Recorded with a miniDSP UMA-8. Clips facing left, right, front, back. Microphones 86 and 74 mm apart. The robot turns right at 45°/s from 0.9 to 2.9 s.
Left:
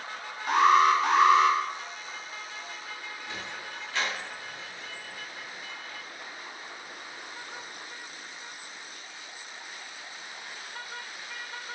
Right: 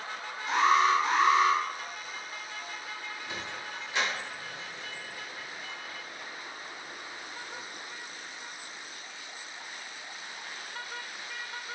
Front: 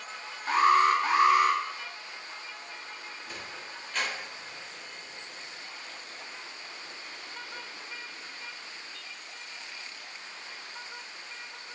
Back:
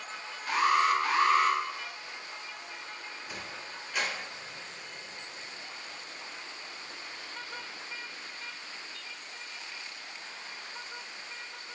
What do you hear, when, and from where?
0.5 s an alarm: 60° left, 0.7 m; by 1.6 s 90° left, 0.7 m
3.3 s a sliding door: 115° right, 0.9 m